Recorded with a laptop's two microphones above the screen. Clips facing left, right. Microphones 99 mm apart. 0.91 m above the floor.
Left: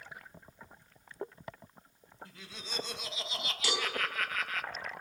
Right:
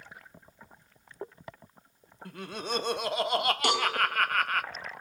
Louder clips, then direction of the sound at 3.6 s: Right 3 dB; 60° right (ahead or behind).